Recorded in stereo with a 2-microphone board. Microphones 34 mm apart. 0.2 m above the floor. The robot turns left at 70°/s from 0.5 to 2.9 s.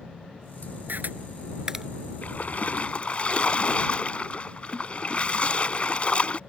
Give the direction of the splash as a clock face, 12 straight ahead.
9 o'clock.